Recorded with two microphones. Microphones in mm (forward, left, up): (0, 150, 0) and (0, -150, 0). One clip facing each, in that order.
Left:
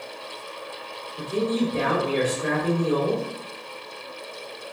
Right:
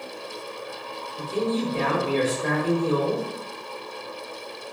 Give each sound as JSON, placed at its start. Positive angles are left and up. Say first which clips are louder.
{"t": 1.2, "sound": "a man speaking", "louder": "left 2 dB", "side_deg": 15, "distance_m": 2.0}